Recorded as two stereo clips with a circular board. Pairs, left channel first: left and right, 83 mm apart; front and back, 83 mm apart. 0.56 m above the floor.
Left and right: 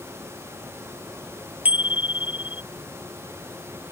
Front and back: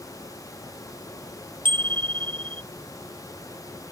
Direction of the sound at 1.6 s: 165° right.